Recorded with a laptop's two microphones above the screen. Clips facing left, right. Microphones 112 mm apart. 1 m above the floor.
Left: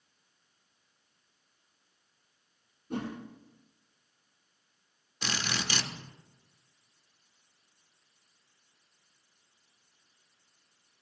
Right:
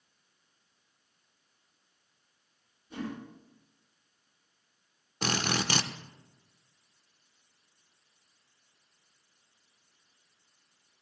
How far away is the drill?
About 1.3 m.